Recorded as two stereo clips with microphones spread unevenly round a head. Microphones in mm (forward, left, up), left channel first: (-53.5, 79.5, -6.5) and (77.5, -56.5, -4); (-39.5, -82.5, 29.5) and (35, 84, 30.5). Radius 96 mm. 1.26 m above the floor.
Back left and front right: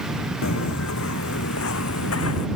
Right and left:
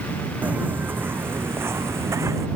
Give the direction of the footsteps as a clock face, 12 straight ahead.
7 o'clock.